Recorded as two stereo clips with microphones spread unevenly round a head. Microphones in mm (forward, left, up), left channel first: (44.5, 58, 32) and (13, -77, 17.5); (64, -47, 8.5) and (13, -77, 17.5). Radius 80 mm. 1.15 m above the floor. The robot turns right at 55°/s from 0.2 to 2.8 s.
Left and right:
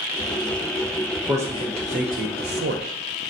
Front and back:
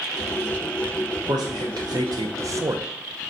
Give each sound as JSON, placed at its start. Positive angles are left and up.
{"t": 1.3, "sound": "a man speaking", "azimuth_deg": 180, "distance_m": 0.5}